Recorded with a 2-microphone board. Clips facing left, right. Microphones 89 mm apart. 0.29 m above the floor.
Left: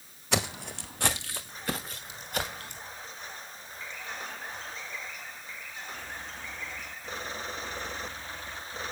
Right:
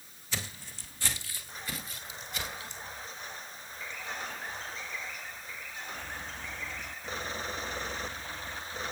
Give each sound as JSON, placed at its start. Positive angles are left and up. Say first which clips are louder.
{"t": 0.3, "sound": "footsteps", "louder": "left 10 dB", "side_deg": 75, "distance_m": 0.9}